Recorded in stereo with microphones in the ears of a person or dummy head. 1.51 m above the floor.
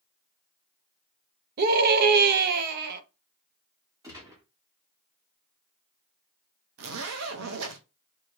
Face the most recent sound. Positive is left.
turn(degrees=-75)  # may be behind; listen again after turning